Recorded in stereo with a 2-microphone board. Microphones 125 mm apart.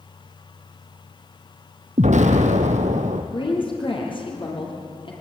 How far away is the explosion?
About 2 m.